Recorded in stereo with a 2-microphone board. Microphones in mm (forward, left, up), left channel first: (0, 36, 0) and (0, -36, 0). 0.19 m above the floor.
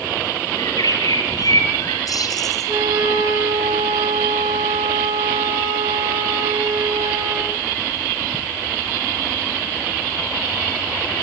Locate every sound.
0.6 s a bird: 55° left (ahead or behind), 4.5 m
2.7 s a flute: 80° right, 6 m